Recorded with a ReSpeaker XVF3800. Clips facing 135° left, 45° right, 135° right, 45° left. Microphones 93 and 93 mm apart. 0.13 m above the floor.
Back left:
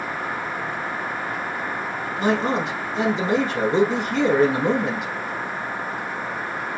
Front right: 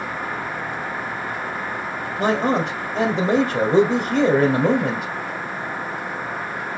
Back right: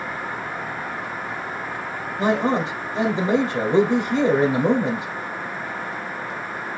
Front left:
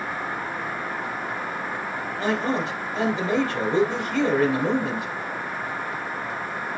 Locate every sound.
2.2 s a man speaking: 75° right, 1.9 m